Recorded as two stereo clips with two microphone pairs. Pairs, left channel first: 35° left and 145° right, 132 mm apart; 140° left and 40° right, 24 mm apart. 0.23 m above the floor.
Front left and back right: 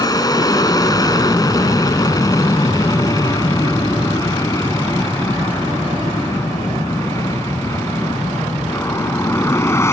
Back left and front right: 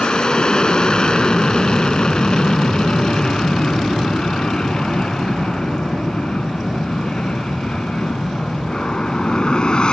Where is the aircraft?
90° left; by 9.9 s 100° left.